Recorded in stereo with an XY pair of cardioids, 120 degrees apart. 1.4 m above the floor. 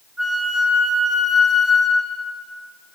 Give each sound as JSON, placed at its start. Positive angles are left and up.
{"t": 0.2, "sound": "a flute", "azimuth_deg": -15, "distance_m": 1.7}